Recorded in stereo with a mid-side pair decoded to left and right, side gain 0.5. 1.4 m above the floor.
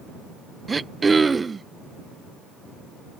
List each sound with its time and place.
0.7 s throat clearing: 25° right